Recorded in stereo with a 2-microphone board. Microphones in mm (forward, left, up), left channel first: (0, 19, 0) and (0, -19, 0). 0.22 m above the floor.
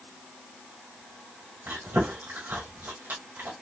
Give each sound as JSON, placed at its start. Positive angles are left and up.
{"t": 1.7, "sound": "chewing", "side_deg": -60, "distance_m": 1.9}